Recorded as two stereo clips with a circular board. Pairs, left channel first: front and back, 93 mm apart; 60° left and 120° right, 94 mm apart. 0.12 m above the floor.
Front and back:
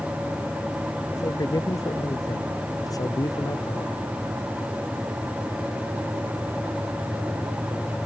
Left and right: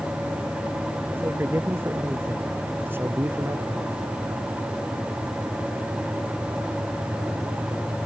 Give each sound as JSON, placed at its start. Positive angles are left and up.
{"t": 1.1, "sound": "a man speaking", "azimuth_deg": -50}